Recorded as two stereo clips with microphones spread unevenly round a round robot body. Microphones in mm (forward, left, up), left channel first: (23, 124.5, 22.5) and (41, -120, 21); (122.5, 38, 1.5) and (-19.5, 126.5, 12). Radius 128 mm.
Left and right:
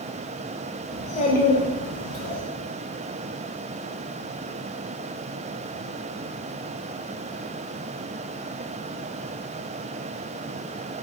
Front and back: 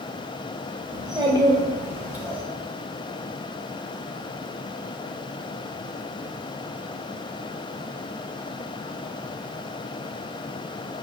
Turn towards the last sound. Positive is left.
turn(degrees=65)